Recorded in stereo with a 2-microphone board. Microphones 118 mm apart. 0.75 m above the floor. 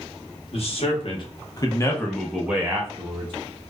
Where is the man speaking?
60° left (ahead or behind), 1.1 m; by 3.3 s 40° right (ahead or behind), 0.8 m.